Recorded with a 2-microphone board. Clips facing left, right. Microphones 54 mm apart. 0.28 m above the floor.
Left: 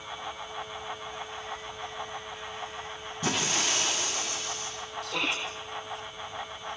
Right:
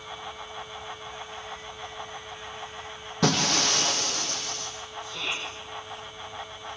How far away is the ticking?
I don't hear ticking.